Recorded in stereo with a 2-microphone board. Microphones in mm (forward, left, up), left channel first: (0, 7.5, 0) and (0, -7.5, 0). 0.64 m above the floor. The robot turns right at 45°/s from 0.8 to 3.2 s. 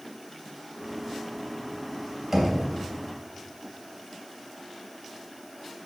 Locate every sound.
2.3 s knocking: 20° right (ahead or behind), 2.5 m; by 2.6 s 10° right (ahead or behind), 2.5 m